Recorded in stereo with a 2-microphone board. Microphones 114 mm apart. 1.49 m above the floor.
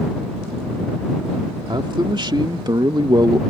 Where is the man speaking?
45° right (ahead or behind); by 3.4 s 35° right (ahead or behind).